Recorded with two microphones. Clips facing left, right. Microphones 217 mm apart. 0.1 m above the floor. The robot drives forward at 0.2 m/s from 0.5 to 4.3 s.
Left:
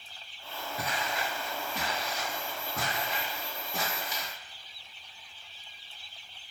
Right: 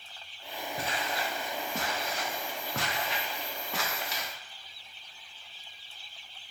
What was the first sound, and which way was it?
Footsteps, 30° right (ahead or behind).